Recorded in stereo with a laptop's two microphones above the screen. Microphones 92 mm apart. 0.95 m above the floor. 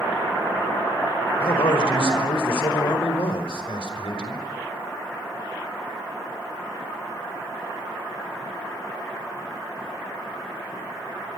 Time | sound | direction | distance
1.4 | a man speaking | 75° left (ahead or behind) | 4.5 m